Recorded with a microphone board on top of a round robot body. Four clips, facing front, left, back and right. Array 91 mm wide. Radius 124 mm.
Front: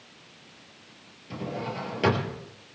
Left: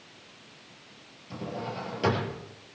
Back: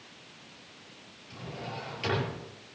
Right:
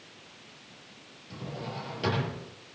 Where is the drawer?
10° left, 5.5 m.